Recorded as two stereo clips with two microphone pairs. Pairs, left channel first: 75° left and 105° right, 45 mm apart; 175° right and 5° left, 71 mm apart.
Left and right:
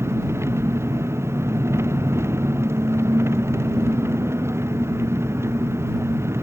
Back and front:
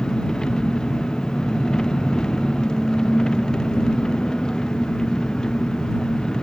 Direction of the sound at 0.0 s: 95° right.